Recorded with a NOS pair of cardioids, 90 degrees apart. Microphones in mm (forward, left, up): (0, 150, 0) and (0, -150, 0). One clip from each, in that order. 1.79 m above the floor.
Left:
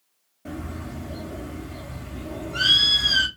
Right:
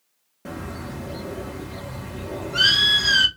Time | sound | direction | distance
0.5 | a bird | 40° right | 1.2 m